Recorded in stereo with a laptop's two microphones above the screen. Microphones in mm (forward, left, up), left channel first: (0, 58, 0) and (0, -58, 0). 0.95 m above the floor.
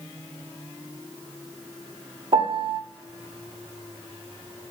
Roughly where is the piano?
Right.